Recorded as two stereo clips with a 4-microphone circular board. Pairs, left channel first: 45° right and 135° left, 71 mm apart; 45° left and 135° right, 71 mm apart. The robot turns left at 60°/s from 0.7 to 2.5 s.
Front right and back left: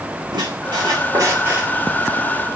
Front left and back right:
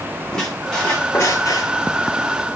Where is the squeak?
125° left, 1.7 m; by 1.7 s 65° left, 1.7 m.